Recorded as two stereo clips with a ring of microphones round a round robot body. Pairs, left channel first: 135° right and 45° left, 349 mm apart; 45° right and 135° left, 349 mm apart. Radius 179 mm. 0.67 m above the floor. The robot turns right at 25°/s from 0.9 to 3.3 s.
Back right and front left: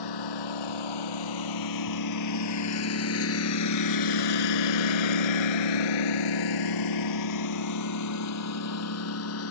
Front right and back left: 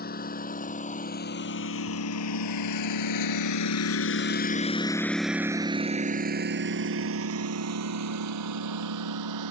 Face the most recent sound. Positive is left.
turn(degrees=175)